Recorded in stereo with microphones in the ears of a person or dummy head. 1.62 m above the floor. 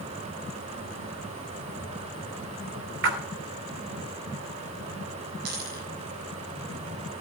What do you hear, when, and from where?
3.0 s a splash: 65° right (ahead or behind), 2.5 m
5.5 s a dropped coin: 60° right (ahead or behind), 7 m